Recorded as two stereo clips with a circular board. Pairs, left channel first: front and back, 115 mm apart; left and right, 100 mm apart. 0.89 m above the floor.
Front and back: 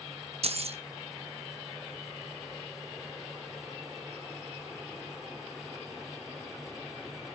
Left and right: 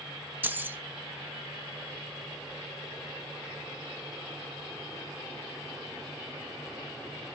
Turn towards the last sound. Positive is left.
turn(degrees=-160)